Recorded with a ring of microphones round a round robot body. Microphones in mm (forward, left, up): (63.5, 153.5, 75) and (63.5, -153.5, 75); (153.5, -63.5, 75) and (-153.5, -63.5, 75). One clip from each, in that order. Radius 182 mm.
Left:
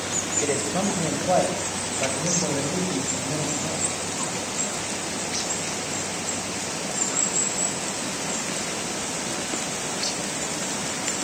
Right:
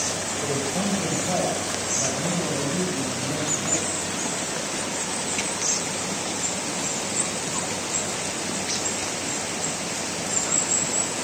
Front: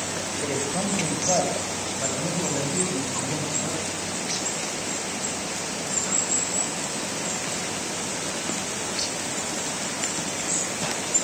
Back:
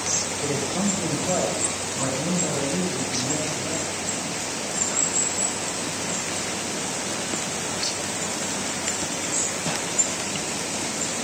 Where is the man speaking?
70° left, 4.5 m; by 3.8 s 45° left, 7 m.